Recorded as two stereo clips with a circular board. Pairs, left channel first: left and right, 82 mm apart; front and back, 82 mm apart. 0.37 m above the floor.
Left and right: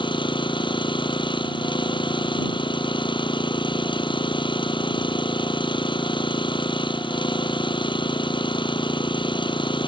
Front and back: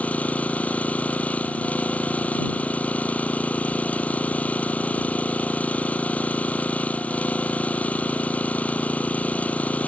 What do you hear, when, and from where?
0.0 s an engine running: 75° left